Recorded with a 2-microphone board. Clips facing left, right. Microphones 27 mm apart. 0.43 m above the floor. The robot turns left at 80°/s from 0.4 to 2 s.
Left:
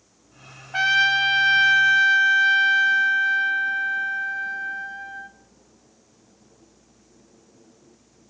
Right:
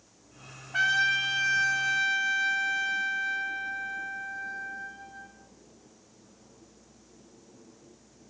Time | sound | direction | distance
0.7 | a trumpet | 140° left | 1.1 m